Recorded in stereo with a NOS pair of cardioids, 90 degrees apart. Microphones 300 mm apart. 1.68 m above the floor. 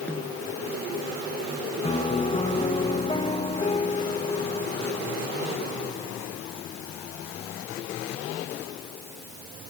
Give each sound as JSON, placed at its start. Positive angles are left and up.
{"t": 0.1, "sound": "a snare drum", "azimuth_deg": 5}
{"t": 1.8, "sound": "a piano", "azimuth_deg": 20}